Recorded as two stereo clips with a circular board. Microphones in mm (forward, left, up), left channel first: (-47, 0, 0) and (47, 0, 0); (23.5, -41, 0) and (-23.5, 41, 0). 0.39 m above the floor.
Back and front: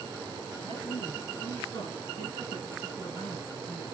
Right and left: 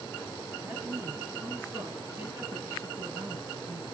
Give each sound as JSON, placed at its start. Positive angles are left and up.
{"t": 0.6, "sound": "a man speaking", "azimuth_deg": 180, "distance_m": 5.0}